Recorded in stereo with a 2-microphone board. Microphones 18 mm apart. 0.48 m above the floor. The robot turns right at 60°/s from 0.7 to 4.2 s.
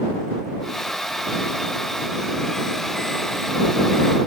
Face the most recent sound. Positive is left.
No sound to turn to.